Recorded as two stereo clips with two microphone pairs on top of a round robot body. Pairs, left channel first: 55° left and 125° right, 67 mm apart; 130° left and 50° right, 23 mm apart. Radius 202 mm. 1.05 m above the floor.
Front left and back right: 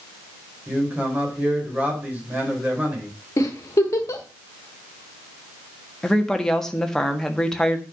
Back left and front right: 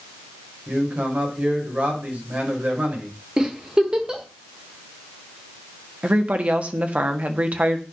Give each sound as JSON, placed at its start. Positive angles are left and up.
{"t": 0.7, "sound": "a man speaking", "azimuth_deg": -55, "distance_m": 4.5}
{"t": 3.4, "sound": "a giggle", "azimuth_deg": 10, "distance_m": 1.3}
{"t": 6.0, "sound": "a woman speaking", "azimuth_deg": -30, "distance_m": 1.7}